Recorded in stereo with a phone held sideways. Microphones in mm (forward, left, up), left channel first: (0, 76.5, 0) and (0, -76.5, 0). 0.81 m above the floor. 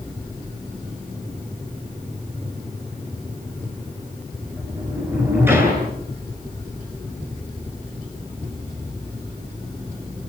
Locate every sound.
4.5 s a sliding door: 15° right (ahead or behind), 9.5 m